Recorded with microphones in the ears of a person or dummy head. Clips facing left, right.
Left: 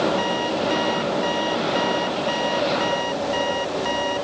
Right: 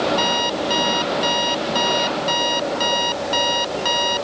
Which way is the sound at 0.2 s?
50° right (ahead or behind).